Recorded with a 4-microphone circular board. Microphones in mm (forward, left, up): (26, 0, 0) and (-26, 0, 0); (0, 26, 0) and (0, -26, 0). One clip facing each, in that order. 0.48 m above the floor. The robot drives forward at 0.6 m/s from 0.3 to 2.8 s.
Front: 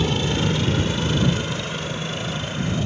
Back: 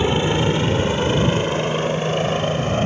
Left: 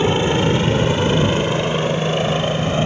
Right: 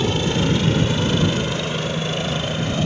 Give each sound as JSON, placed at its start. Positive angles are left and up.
{"t": 0.0, "sound": "a helicopter", "azimuth_deg": 130}